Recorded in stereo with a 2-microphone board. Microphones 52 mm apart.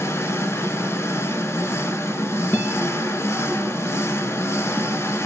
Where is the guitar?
35° left (ahead or behind), 1.8 m.